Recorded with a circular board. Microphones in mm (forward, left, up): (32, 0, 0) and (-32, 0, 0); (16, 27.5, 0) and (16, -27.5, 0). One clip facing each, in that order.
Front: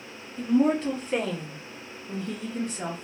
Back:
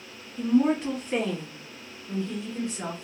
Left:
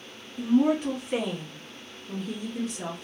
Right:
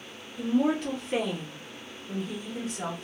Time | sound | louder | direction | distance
0.4 | a woman speaking | even, left 3 dB | 110° left | 1.4 m